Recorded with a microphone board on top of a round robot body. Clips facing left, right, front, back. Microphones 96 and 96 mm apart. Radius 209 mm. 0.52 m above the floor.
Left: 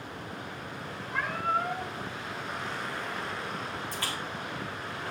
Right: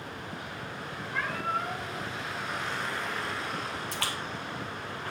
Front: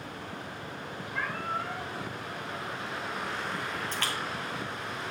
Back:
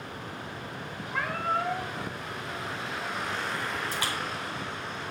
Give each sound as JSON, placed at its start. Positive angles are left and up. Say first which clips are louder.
{"t": 1.1, "sound": "a cat meowing", "louder": "left 2 dB, back 5 dB", "azimuth_deg": 165, "distance_m": 1.1}
{"t": 3.9, "sound": "a splash", "louder": "right 1 dB, back 1 dB", "azimuth_deg": -100, "distance_m": 1.4}